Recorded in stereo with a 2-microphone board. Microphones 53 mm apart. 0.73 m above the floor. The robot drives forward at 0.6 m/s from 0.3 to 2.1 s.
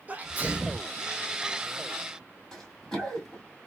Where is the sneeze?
30° right (ahead or behind), 0.8 m; by 0.9 s 25° right (ahead or behind), 1.1 m.